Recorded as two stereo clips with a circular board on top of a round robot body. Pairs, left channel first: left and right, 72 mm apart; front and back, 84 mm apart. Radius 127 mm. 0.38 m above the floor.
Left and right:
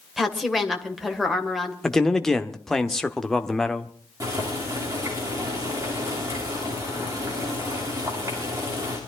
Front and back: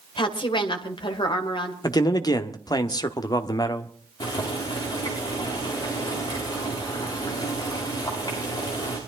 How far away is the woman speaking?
About 2.5 m.